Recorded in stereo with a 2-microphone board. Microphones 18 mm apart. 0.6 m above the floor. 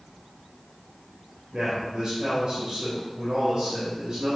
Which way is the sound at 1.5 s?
55° right (ahead or behind).